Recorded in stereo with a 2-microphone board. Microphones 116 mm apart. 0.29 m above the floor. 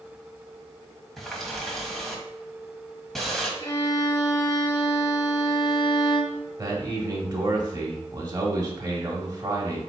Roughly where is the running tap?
Centre.